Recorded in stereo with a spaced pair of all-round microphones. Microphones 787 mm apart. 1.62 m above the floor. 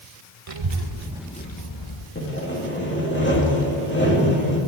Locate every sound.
0.5 s a child speaking: 45° right (ahead or behind), 1.1 m; by 2.0 s 45° left (ahead or behind), 1.1 m
2.1 s sawing: 15° left (ahead or behind), 2.5 m